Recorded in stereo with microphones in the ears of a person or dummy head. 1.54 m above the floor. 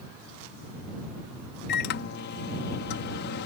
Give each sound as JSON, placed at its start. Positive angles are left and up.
{"t": 1.7, "sound": "a microwave", "side_deg": 55}